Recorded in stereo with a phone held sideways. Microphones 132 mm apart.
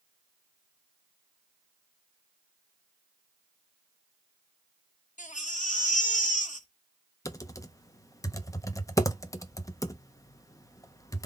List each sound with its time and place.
5.2 s a baby crying: 70° left (ahead or behind), 0.9 m
7.2 s typing on a keyboard: 25° left (ahead or behind), 0.6 m